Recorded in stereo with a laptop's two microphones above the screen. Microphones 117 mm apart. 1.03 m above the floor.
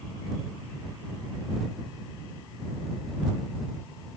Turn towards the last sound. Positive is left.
No sound to turn to.